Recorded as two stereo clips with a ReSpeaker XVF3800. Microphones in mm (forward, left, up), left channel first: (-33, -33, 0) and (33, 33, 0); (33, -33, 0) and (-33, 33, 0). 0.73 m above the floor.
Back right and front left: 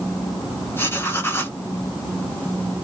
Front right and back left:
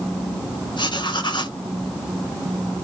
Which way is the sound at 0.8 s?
75° right.